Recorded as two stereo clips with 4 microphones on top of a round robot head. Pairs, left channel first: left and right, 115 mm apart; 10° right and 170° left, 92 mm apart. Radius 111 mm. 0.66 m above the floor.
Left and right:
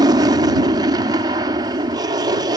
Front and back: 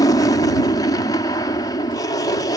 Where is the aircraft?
45° right.